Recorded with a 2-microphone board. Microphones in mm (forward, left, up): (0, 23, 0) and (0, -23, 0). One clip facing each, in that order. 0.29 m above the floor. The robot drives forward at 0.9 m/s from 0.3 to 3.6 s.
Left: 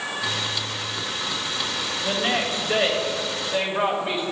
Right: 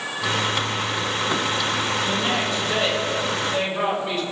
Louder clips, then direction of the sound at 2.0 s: Right 1 dB; 25° left (ahead or behind).